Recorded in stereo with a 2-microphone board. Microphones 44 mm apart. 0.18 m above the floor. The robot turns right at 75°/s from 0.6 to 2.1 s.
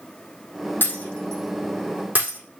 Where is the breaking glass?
50° left (ahead or behind), 4.5 m; by 2.4 s 45° right (ahead or behind), 4.5 m.